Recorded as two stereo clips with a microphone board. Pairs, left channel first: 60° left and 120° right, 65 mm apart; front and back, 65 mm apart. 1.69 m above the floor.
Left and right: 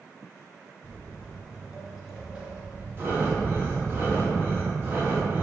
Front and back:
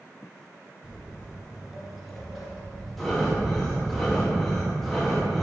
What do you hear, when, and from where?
0.8 s footsteps: 130° left, 1.7 m; by 4.0 s 70° right, 2 m
3.0 s breathing: 85° right, 1.3 m